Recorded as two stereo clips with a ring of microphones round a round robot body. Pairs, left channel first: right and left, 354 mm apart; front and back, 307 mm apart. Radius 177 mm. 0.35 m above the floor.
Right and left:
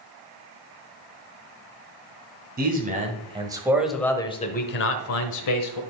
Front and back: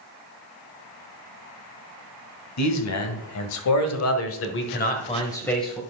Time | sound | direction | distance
2.6 | a man speaking | 25° left | 2.5 m